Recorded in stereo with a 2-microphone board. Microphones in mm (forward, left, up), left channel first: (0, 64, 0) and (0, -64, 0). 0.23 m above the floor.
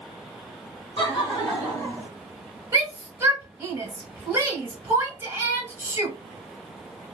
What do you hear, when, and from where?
1.0 s laughter: 45° left (ahead or behind), 1.8 m; by 2.1 s 20° left (ahead or behind), 1.7 m
2.7 s a shout: 20° right (ahead or behind), 1.4 m